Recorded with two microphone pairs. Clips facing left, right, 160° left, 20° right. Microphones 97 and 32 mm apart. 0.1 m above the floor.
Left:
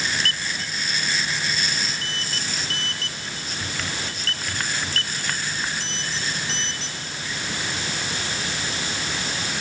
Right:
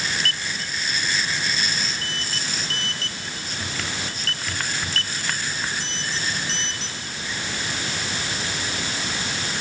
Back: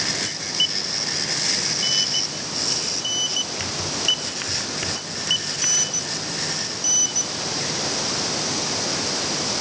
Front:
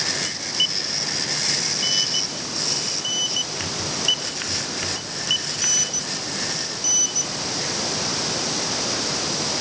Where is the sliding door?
I don't hear a sliding door.